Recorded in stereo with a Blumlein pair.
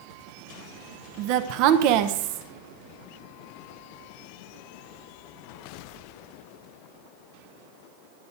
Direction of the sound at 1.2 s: 45° right.